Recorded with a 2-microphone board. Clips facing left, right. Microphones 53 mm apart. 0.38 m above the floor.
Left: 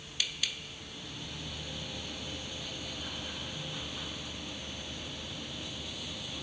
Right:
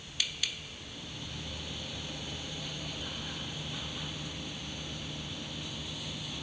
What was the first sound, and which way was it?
Only background noise.